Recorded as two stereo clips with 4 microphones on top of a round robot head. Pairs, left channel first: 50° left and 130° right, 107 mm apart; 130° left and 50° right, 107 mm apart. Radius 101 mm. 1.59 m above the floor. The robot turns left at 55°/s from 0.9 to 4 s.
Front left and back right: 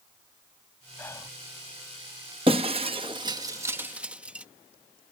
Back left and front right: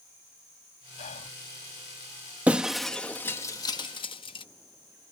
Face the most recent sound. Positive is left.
turn(degrees=155)